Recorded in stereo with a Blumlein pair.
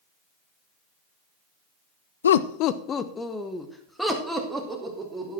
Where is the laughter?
70° left, 0.6 m; by 5.4 s 5° right, 3 m.